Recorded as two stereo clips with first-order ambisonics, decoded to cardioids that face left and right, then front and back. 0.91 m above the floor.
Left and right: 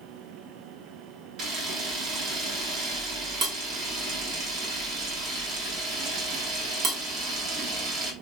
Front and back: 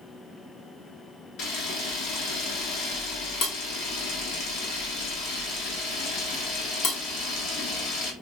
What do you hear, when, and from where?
1.4 s a camera shutter: 40° right, 1.1 m